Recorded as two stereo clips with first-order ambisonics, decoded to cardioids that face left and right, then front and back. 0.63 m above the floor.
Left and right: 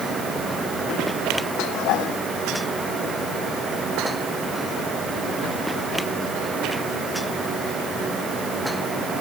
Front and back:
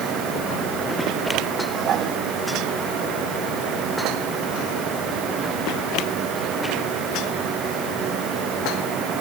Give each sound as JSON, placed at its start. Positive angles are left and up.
{"t": 1.6, "sound": "dishes clattering", "azimuth_deg": 125}